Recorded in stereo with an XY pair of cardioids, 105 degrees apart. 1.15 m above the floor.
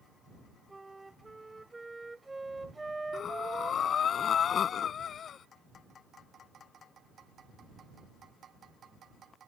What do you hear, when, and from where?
0.7 s a flute: 15° right
3.1 s breathing: 55° left